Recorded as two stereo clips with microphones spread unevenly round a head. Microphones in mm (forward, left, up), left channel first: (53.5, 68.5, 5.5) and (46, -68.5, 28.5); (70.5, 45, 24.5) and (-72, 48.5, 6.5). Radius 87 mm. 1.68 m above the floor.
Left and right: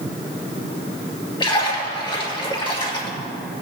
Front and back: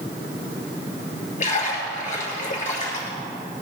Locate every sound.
1.4 s a splash: 35° left, 3 m